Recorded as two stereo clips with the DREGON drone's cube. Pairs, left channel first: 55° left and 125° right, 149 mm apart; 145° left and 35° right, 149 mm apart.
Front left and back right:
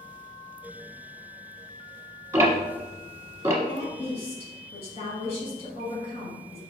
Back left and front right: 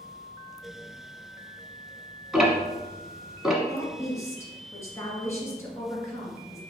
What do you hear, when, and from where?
2.3 s ticking: 120° right, 1.2 m
3.6 s a woman speaking: 80° left, 1.9 m